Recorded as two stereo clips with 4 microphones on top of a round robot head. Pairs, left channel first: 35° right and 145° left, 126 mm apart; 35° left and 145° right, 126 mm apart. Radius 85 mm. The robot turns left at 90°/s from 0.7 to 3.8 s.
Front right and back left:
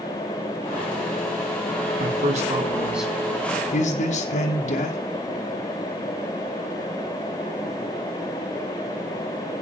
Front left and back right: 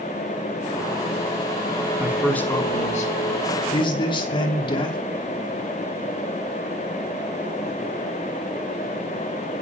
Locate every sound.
2.0 s a man speaking: 145° left, 3.5 m; by 5.0 s 15° right, 3.5 m